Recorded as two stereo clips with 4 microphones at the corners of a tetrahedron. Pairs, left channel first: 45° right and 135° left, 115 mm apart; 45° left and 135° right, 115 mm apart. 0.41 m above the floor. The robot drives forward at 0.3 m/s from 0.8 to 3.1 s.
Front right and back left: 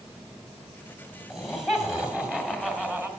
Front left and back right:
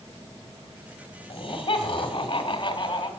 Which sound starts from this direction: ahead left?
Laughter, at 1.3 s.